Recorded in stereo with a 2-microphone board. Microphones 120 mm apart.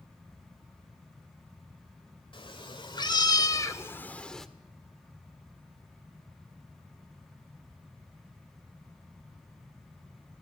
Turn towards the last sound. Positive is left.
turn(degrees=0)  # may be behind; listen again after turning